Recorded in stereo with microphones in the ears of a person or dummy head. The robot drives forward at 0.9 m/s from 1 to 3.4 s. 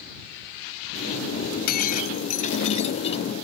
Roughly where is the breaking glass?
Left.